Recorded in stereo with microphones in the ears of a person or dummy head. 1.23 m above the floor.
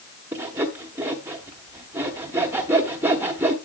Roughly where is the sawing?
Centre.